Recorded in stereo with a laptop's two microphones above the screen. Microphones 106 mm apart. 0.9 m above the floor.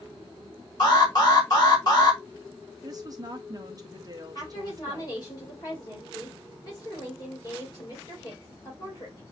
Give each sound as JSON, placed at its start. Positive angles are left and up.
{"t": 0.8, "sound": "an alarm", "side_deg": 40, "distance_m": 1.9}
{"t": 2.8, "sound": "a woman speaking", "side_deg": -35, "distance_m": 0.8}
{"t": 4.3, "sound": "a woman speaking", "side_deg": 40, "distance_m": 2.0}